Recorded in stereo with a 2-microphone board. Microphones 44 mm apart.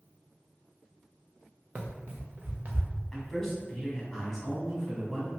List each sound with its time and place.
1.8 s running footsteps: 50° right (ahead or behind), 0.8 m; by 2.9 s 40° right (ahead or behind), 1.4 m
3.1 s a man speaking: 5° left (ahead or behind), 1.5 m